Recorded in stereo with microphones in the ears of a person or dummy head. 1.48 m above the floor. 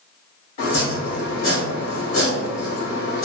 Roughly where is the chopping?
Left.